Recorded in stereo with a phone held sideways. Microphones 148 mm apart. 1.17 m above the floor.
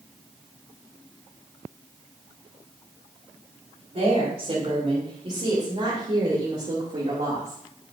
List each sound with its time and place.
3.9 s a woman speaking: 50° right (ahead or behind), 4 m